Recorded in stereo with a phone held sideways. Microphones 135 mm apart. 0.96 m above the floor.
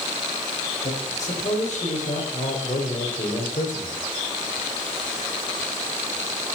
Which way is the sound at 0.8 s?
55° left (ahead or behind).